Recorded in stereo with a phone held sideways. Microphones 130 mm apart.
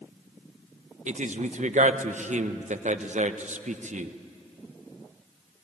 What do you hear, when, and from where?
1.1 s a man speaking: 70° right (ahead or behind), 0.9 m